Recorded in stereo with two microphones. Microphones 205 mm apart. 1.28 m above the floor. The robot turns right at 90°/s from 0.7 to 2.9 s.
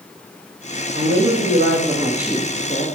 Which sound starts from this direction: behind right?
A woman speaking, at 0.9 s.